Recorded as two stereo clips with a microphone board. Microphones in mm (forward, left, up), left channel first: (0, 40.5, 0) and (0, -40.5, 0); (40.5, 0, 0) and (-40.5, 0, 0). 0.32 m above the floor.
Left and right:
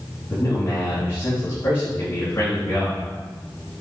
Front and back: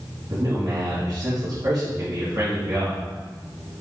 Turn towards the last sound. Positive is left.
turn(degrees=150)